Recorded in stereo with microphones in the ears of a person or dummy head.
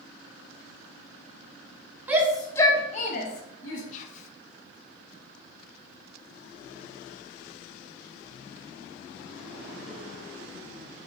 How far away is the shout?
About 0.7 m.